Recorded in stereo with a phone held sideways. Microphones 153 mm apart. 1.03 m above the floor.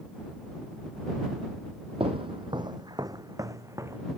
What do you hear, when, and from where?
2.0 s footsteps: 40° right (ahead or behind); by 4.0 s 20° right (ahead or behind)